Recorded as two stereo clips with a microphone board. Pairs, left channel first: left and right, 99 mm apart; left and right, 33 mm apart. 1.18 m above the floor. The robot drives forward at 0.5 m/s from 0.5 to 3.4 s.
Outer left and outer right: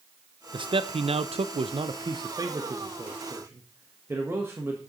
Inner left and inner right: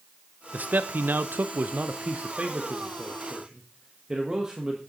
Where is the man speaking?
55° right (ahead or behind), 0.6 m; by 4.8 s 25° right (ahead or behind), 1.2 m.